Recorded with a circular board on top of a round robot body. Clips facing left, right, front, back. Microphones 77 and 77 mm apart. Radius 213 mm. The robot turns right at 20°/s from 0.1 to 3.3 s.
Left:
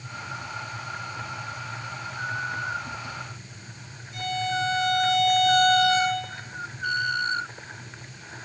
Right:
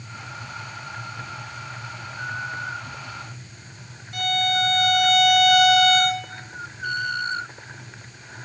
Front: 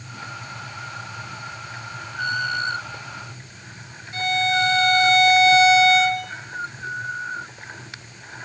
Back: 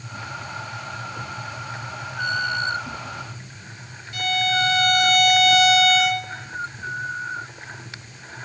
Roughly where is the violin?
Ahead right.